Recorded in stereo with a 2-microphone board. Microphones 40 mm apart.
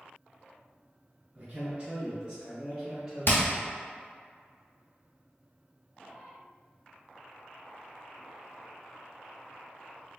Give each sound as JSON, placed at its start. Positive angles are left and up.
{"t": 1.4, "sound": "a man speaking", "side_deg": -35, "distance_m": 1.6}
{"t": 3.3, "sound": "hammering", "side_deg": 60, "distance_m": 0.9}